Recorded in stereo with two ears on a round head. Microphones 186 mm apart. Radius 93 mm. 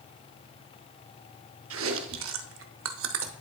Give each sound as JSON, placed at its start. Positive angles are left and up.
{"t": 1.7, "sound": "chewing", "side_deg": -70, "distance_m": 0.8}